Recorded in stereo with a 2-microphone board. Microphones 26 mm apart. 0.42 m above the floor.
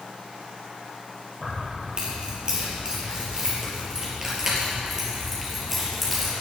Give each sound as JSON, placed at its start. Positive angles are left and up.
{"t": 1.4, "sound": "keys jangling", "side_deg": -35, "distance_m": 6.0}